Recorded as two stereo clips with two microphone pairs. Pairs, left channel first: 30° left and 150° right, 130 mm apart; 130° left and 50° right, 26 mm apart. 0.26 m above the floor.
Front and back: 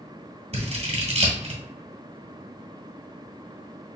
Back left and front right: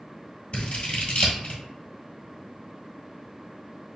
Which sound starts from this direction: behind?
Scissors, at 0.5 s.